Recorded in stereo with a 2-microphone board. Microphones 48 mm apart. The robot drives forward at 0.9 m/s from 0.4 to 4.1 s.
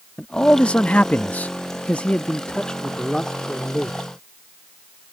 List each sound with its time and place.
0.2 s a man speaking: 20° left (ahead or behind); by 4.1 s 10° left (ahead or behind)